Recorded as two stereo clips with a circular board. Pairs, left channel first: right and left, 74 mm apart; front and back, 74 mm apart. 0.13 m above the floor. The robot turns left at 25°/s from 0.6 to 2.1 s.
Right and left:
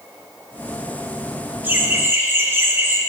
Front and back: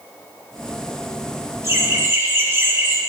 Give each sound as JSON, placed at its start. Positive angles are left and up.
{"t": 1.6, "sound": "laughter", "azimuth_deg": 145, "distance_m": 2.5}